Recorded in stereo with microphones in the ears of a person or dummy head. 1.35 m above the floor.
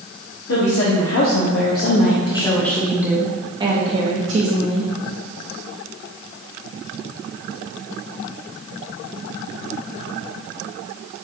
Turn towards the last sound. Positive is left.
turn(degrees=-45)  # may be behind; listen again after turning